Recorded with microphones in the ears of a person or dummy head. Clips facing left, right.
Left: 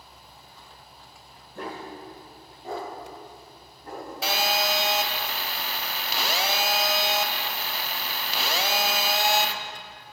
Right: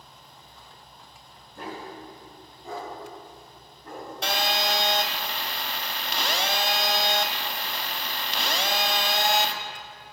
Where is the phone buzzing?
10° left (ahead or behind), 0.6 m.